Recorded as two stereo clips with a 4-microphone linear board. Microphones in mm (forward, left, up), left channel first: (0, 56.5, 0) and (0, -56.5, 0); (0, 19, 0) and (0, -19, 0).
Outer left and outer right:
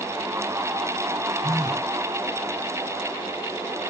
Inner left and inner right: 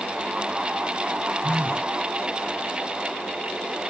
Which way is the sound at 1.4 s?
35° right (ahead or behind).